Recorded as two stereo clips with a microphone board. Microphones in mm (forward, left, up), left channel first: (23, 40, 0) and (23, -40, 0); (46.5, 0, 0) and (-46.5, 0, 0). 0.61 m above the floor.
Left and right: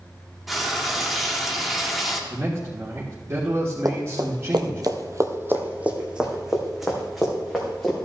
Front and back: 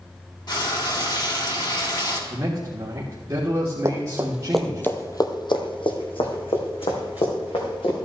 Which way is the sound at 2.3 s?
135° right.